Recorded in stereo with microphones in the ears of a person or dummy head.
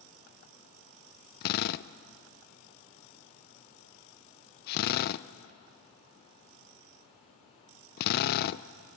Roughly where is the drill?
Left.